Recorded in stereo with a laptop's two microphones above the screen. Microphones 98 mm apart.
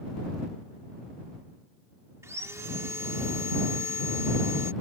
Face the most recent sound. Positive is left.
turn(degrees=-30)  # may be behind; listen again after turning